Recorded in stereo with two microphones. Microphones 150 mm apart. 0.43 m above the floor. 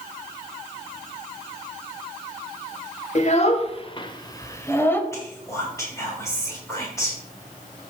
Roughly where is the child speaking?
Left.